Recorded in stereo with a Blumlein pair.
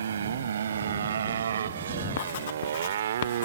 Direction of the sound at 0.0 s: 65° right.